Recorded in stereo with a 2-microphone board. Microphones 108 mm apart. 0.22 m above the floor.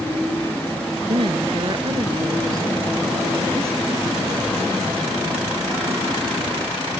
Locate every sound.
1.1 s a woman speaking: 55° right (ahead or behind); by 3.8 s 20° right (ahead or behind)